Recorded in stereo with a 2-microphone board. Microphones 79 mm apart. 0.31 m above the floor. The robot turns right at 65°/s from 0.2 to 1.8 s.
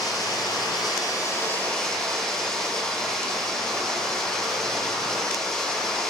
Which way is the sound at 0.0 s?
65° left.